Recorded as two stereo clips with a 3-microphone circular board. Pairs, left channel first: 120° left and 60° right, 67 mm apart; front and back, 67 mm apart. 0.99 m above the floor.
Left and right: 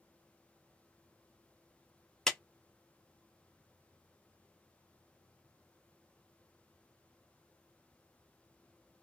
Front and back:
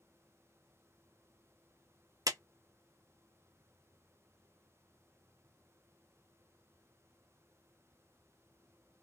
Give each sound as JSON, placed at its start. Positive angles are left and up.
{"t": 2.3, "sound": "a clap", "azimuth_deg": -160, "distance_m": 0.7}